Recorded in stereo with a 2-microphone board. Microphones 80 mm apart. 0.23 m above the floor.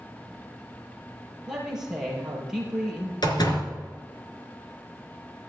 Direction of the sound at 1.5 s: 5° right (ahead or behind).